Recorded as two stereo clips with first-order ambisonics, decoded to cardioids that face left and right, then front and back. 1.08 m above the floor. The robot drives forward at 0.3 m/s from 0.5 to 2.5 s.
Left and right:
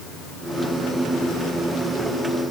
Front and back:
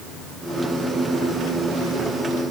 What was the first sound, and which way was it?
Only background noise.